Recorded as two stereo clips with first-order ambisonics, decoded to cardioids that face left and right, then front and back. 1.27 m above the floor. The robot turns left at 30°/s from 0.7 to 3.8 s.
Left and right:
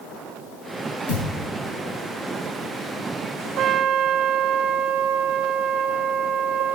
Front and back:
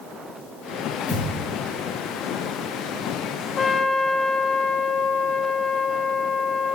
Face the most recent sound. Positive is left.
turn(degrees=-60)